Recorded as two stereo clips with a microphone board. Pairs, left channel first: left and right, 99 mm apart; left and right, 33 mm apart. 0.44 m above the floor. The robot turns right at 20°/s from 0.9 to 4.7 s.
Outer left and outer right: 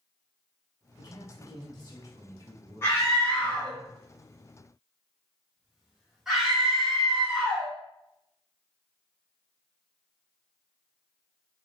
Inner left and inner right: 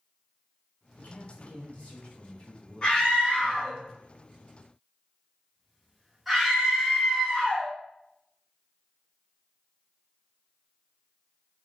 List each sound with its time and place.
1.0 s a man speaking: 115° left, 2.5 m; by 3.8 s 175° left, 2.5 m
2.8 s a scream: 25° left (ahead or behind), 1.7 m; by 7.7 s 5° right (ahead or behind), 1.7 m